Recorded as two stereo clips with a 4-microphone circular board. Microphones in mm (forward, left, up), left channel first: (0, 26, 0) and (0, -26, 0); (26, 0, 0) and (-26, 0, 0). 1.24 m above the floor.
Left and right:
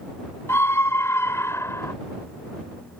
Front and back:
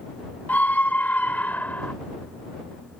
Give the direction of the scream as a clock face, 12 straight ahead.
10 o'clock.